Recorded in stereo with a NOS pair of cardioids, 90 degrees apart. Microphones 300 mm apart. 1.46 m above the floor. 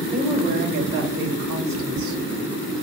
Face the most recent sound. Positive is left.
turn(degrees=-70)